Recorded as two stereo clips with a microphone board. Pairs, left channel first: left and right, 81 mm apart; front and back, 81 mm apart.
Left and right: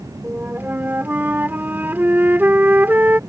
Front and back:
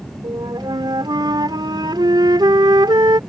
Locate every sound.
0.2 s a flute: 155° right